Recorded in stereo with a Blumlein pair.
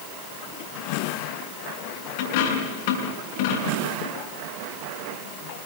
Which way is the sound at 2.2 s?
50° left.